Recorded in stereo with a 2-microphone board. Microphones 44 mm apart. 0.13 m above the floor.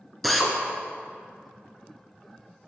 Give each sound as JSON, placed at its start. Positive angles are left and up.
{"t": 0.2, "sound": "a drill", "side_deg": 0, "distance_m": 1.0}